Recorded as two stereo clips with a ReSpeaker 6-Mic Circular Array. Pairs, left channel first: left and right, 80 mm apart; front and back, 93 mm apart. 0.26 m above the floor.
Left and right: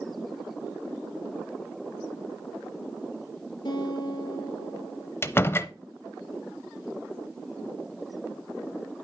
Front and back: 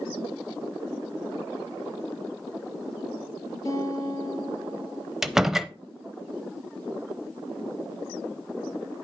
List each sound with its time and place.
3.6 s a guitar: 55° left, 1.7 m
5.2 s a door slam: 100° left, 0.6 m